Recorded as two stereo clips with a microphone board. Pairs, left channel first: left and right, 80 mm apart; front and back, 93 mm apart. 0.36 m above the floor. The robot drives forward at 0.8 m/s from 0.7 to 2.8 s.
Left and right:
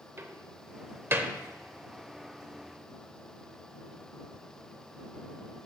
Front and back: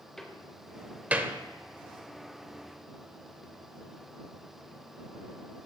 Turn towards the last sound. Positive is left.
turn(degrees=-165)